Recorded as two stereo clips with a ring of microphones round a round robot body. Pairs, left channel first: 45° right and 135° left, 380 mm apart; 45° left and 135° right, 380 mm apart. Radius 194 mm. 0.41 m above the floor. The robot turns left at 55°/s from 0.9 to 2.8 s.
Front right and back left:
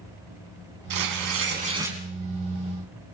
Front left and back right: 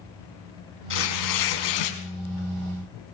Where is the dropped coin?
I don't hear a dropped coin.